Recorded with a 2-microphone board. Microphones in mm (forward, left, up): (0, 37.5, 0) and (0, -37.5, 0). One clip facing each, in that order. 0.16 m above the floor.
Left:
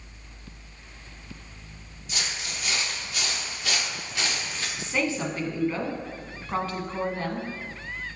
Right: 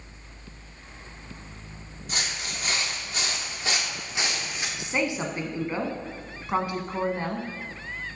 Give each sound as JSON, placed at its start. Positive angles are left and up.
{"t": 2.1, "sound": "footsteps", "side_deg": -40, "distance_m": 4.0}
{"t": 4.8, "sound": "a woman speaking", "side_deg": -20, "distance_m": 1.1}